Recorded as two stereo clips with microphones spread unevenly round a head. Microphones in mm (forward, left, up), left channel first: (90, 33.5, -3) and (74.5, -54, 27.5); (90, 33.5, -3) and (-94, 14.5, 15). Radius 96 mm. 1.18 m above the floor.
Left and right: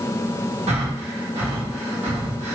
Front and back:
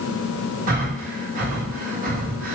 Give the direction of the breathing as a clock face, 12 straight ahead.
4 o'clock.